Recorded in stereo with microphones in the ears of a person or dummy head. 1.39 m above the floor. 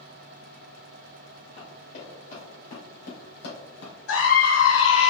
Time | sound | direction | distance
1.6 | running footsteps | 20° left (ahead or behind) | 1.9 m
4.1 | a scream | 80° left | 1.3 m